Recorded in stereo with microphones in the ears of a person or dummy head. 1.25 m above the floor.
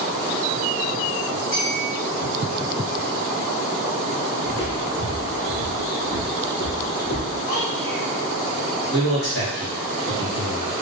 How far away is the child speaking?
About 1.7 m.